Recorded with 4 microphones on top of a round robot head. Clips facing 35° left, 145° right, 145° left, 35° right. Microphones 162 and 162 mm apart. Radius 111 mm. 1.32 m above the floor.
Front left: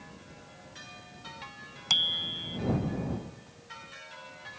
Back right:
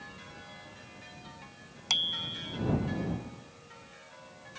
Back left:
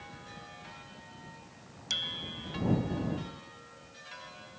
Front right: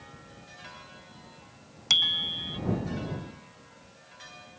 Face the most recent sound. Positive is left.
turn(degrees=-60)